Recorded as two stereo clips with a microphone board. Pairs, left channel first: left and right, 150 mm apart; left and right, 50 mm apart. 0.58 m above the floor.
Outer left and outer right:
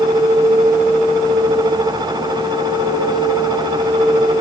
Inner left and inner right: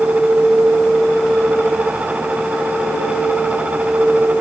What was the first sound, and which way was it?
Only background noise.